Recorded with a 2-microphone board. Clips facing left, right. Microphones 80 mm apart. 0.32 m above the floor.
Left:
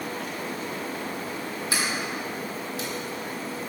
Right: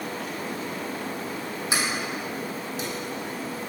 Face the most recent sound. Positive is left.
turn(degrees=-20)  # may be behind; listen again after turning